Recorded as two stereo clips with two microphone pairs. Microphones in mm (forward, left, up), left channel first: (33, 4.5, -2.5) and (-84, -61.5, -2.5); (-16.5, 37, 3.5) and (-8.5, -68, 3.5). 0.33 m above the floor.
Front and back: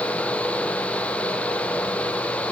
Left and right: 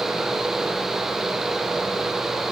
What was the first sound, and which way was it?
Only background noise.